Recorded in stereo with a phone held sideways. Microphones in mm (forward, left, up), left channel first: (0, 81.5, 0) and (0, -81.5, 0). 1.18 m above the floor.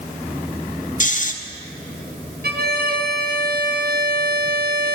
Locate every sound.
1.0 s snoring: 50° left (ahead or behind), 0.6 m
2.4 s a violin: 65° right (ahead or behind), 0.7 m